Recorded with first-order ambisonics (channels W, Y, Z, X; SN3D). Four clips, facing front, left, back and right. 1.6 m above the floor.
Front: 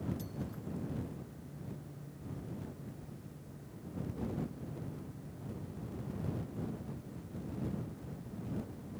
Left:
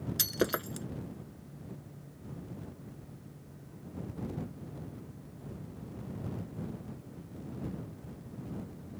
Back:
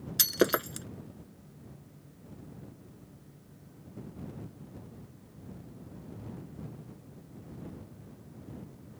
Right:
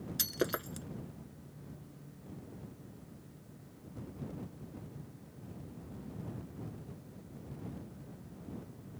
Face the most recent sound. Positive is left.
turn(degrees=170)